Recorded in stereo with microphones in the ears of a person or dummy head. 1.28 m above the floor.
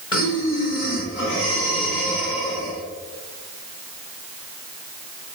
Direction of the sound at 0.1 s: 20° left (ahead or behind).